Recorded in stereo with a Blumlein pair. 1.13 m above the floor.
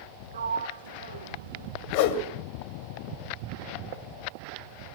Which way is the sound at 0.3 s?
65° right.